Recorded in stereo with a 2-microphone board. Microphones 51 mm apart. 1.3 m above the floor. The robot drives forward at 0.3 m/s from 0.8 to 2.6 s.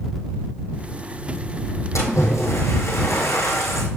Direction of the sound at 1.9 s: 75° left (ahead or behind).